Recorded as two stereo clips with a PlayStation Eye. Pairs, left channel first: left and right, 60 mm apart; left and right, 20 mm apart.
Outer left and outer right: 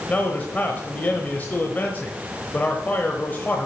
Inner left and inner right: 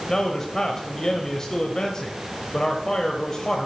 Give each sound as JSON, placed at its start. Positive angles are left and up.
{"t": 0.1, "sound": "a man speaking", "side_deg": 25, "distance_m": 1.0}